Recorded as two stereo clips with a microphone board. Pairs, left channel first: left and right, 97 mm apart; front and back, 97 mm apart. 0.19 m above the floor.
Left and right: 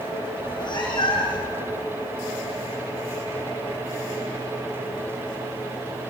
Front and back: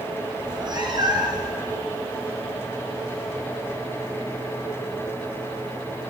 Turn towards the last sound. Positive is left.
turn(degrees=135)